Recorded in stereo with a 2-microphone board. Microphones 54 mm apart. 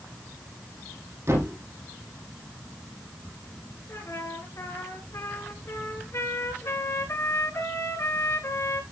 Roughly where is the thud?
Right.